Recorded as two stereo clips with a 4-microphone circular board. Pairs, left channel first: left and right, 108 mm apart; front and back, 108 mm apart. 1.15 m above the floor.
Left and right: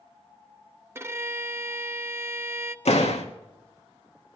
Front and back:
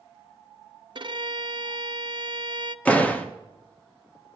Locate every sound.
0.9 s a violin: 150° right, 0.7 m
2.9 s a door slam: 80° left, 1.5 m